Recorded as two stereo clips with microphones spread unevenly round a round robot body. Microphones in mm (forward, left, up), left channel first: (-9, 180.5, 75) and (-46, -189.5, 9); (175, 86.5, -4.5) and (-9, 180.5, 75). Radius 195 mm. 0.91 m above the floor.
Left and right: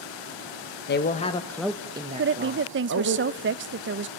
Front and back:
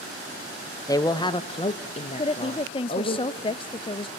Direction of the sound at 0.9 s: 20° left.